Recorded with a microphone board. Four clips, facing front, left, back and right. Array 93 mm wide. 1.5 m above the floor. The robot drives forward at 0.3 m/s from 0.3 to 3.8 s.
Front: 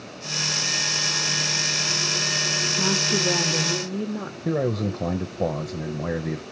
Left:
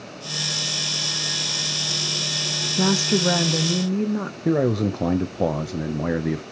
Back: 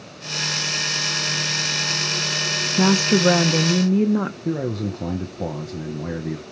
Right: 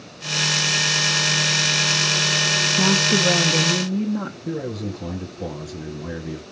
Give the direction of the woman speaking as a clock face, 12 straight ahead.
6 o'clock.